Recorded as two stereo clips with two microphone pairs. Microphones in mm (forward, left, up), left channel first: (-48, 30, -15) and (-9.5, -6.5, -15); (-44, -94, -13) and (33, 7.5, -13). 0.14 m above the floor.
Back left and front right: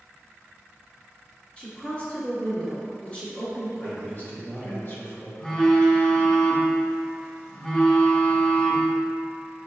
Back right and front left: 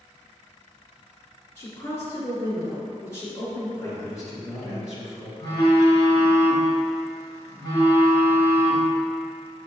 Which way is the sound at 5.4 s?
165° right.